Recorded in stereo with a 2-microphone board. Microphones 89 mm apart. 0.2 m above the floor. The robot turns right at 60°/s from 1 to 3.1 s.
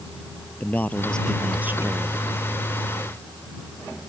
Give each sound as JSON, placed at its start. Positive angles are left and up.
{"t": 0.6, "sound": "a man speaking", "azimuth_deg": 160}